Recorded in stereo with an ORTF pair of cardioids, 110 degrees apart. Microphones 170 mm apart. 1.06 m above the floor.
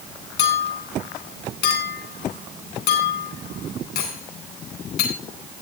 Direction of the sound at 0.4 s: 70° left.